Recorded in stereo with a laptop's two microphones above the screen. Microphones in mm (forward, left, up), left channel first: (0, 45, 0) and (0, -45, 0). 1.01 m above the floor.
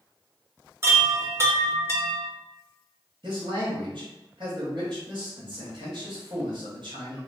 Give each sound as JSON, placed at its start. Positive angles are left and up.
{"t": 0.8, "sound": "a chime", "side_deg": -30, "distance_m": 0.9}
{"t": 3.2, "sound": "a man speaking", "side_deg": -50, "distance_m": 1.3}